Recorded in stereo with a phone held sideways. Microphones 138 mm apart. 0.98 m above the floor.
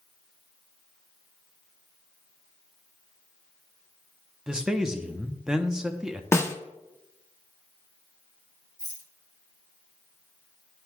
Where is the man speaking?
5° right (ahead or behind), 0.7 m.